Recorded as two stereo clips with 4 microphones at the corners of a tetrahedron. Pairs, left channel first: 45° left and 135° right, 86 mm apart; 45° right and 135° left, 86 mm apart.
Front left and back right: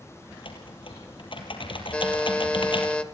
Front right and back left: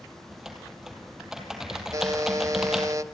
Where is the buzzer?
115° left, 1.4 m.